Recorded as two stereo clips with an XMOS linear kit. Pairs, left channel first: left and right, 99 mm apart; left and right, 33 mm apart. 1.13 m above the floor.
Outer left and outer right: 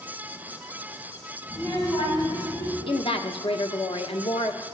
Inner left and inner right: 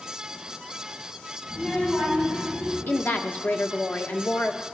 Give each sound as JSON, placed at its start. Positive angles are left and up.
{"t": 1.5, "sound": "a child speaking", "side_deg": 45, "distance_m": 6.0}
{"t": 2.9, "sound": "a woman speaking", "side_deg": 65, "distance_m": 1.2}